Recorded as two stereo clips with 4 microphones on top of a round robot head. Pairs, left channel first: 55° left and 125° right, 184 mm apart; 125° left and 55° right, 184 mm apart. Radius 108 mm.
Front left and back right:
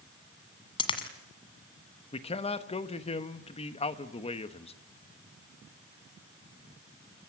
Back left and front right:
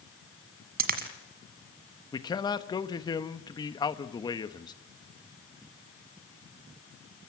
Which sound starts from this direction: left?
A man speaking, at 2.1 s.